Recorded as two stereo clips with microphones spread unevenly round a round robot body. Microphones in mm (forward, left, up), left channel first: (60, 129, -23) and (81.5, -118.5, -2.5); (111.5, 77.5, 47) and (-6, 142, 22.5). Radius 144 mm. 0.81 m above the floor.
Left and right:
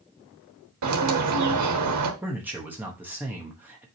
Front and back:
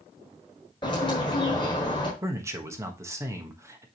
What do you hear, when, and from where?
0.8 s a bird: 100° right, 1.2 m
2.2 s a man speaking: 170° right, 1.0 m